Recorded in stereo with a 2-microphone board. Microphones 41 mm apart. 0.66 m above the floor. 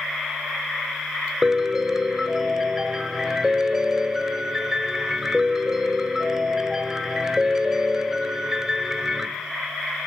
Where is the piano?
10° right (ahead or behind), 1.4 m.